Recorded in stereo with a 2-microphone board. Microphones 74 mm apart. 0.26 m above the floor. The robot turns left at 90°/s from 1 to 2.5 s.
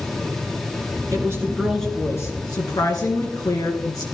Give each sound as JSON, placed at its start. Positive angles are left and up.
{"t": 1.1, "sound": "a woman speaking", "azimuth_deg": -125, "distance_m": 3.0}